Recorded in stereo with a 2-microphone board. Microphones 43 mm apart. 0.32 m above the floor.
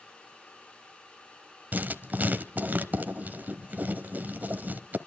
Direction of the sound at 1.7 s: 40° right (ahead or behind).